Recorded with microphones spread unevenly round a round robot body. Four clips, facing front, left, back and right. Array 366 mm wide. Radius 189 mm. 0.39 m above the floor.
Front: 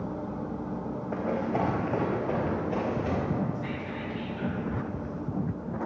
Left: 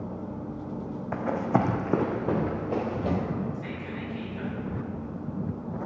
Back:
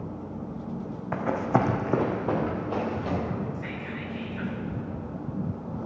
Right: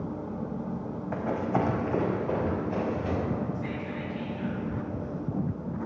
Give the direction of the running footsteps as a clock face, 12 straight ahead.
7 o'clock.